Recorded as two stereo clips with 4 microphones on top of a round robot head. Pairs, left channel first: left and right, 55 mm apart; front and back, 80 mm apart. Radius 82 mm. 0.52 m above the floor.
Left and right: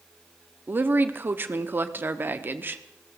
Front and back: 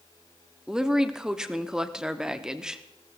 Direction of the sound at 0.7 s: 100° right.